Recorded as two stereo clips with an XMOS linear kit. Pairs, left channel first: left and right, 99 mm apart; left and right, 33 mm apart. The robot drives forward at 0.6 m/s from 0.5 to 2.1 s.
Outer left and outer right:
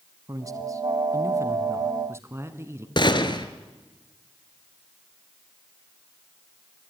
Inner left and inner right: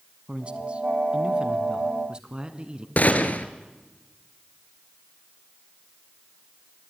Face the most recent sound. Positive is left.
turn(degrees=50)  # may be behind; listen again after turning